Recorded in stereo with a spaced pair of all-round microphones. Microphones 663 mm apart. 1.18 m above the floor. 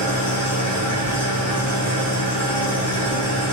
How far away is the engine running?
About 1.1 m.